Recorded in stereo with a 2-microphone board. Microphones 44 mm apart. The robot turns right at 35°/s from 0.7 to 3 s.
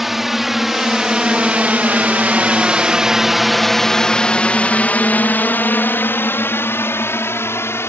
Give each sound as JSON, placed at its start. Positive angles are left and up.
{"t": 0.0, "sound": "a drone", "side_deg": -5}